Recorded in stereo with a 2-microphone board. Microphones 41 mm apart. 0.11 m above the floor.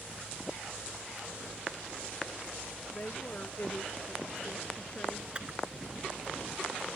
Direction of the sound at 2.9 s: 35° left (ahead or behind).